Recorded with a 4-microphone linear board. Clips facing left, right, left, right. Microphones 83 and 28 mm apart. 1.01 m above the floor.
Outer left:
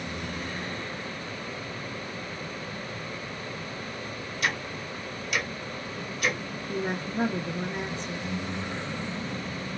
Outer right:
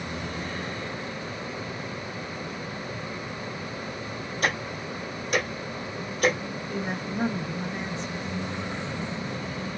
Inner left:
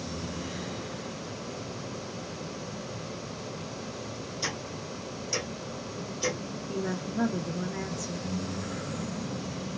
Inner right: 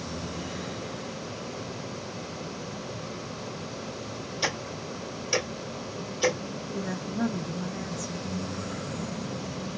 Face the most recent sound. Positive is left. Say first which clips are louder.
# outer left 2 dB, inner left 2 dB
turn(degrees=50)  # may be behind; listen again after turning